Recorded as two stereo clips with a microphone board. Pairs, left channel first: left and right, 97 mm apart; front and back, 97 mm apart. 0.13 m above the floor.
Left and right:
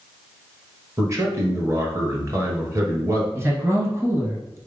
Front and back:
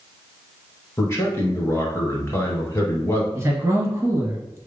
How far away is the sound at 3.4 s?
About 1.4 m.